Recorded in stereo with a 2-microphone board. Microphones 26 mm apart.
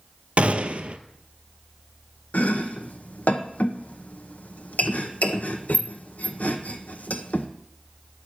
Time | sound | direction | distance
0.4 | a gunshot | 55° right (ahead or behind) | 0.6 m
2.3 | chopping | 80° left | 0.9 m